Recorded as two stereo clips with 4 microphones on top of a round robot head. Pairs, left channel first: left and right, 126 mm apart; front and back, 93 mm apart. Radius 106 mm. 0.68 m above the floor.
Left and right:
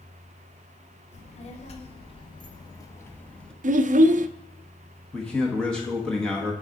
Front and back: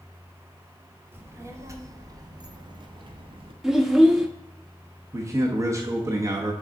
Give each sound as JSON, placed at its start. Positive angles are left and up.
{"t": 1.1, "sound": "a child speaking", "azimuth_deg": 115, "distance_m": 1.7}
{"t": 3.6, "sound": "a child speaking", "azimuth_deg": -95, "distance_m": 0.5}
{"t": 5.1, "sound": "a man speaking", "azimuth_deg": 170, "distance_m": 1.1}